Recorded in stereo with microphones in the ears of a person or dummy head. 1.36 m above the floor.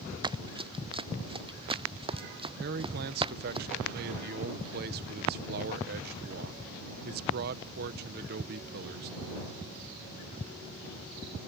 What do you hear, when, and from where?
0.2 s running footsteps: 25° right (ahead or behind)
2.6 s a man speaking: 55° right (ahead or behind)